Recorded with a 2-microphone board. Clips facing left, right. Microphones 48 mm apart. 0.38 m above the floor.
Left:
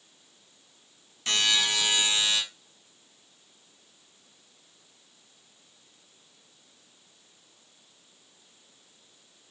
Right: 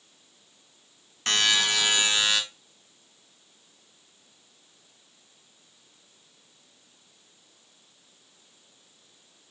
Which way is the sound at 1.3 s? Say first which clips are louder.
Right 2 dB; 70° right (ahead or behind).